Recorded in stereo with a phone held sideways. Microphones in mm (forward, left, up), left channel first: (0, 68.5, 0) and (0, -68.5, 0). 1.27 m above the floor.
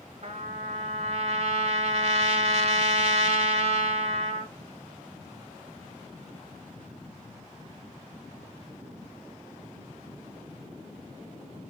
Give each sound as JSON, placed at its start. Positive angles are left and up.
{"t": 0.2, "sound": "a trumpet", "side_deg": -50, "distance_m": 0.7}